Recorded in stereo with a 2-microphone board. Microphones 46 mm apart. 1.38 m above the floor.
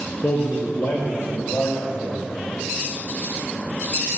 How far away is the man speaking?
About 1.3 m.